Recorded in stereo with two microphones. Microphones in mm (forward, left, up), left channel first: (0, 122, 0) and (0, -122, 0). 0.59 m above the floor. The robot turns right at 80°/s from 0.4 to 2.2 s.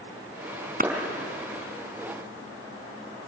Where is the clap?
35° right (ahead or behind), 4.5 m; by 0.9 s 40° right (ahead or behind), 4.5 m.